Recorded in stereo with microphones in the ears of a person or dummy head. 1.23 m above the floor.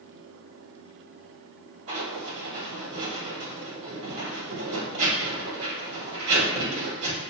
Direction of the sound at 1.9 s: 70° right (ahead or behind).